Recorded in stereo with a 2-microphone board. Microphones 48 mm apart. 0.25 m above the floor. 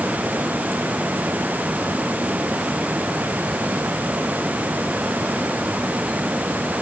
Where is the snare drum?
I don't hear a snare drum.